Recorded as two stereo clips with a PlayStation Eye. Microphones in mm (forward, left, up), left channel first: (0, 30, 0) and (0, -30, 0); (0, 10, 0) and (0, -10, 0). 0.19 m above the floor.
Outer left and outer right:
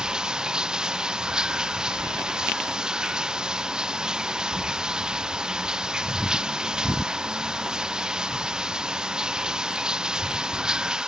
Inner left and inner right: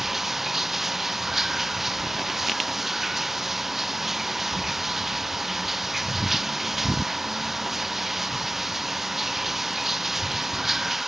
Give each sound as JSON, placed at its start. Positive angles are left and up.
{"t": 0.0, "sound": "running water", "side_deg": -10}